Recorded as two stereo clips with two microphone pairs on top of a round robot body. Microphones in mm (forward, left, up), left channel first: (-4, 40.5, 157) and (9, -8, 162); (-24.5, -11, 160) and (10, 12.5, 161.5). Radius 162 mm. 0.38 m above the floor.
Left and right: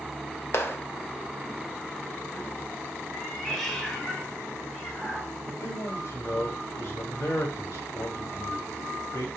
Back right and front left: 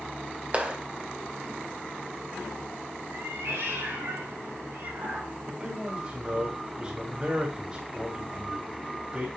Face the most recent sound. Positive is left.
turn(degrees=100)